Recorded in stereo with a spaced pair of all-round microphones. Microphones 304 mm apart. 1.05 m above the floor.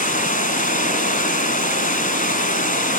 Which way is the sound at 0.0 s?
25° left (ahead or behind).